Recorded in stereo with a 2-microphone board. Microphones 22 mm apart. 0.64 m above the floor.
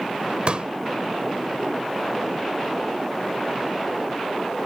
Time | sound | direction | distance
0.5 | a pop | 55° right (ahead or behind) | ?